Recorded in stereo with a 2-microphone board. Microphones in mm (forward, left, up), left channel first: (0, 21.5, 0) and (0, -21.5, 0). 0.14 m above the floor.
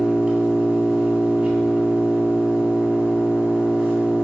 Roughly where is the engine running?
Centre.